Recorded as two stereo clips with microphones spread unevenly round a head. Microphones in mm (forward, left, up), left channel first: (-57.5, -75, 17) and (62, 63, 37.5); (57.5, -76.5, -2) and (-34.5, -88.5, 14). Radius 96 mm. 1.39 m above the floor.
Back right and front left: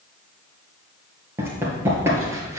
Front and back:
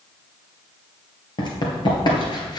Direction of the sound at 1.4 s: 20° right.